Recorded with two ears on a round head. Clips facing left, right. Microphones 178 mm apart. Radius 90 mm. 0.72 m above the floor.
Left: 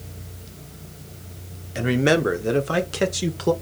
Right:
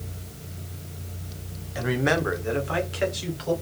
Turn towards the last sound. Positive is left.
turn(degrees=65)  # may be behind; listen again after turning